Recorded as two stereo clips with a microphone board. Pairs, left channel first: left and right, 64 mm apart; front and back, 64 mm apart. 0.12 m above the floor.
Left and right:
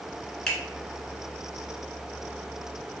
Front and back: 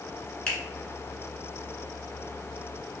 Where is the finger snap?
30° left, 1.3 m.